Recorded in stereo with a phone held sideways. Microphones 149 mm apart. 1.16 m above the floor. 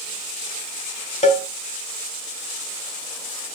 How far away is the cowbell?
About 1.6 m.